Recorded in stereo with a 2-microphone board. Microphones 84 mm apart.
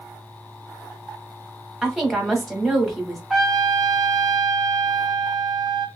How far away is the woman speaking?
About 1.1 m.